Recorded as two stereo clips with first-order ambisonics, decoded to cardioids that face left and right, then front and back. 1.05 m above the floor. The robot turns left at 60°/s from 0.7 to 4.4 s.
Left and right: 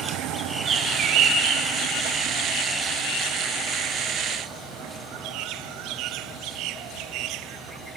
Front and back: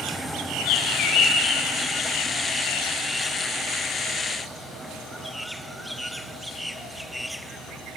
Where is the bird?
20° right, 3.5 m; by 1.6 s 75° right, 3.5 m.